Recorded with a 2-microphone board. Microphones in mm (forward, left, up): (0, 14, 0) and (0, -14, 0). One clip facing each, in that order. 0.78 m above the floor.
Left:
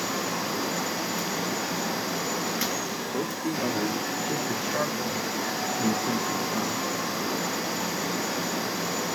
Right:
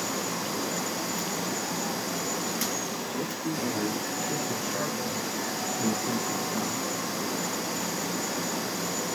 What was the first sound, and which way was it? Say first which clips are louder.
A man speaking: left 4 dB; 65° left (ahead or behind).